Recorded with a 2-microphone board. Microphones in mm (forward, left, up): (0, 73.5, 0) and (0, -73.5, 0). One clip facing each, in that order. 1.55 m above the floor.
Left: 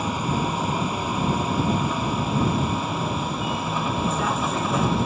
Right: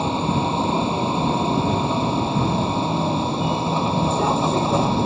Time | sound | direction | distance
0.0 | a vehicle | 30° right (ahead or behind) | ?